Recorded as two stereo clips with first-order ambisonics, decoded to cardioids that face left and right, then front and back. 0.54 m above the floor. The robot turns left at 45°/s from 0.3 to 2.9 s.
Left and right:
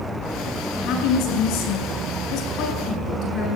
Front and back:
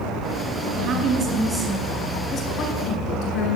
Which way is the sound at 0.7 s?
135° left.